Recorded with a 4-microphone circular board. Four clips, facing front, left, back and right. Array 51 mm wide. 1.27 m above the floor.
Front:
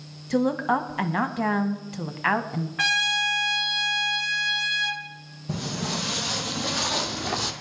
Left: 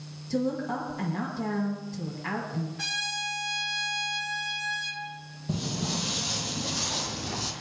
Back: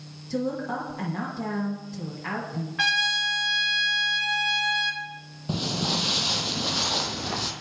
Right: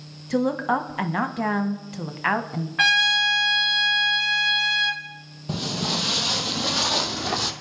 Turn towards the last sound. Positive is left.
turn(degrees=-85)